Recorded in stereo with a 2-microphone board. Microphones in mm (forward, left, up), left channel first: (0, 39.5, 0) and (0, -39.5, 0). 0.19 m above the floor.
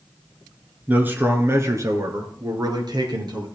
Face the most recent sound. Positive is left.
turn(degrees=-70)  # may be behind; listen again after turning